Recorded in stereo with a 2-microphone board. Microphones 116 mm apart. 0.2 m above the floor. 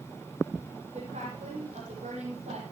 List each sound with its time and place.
0.9 s a woman speaking: 80° right, 7 m; by 2.6 s 75° right (ahead or behind), 5.5 m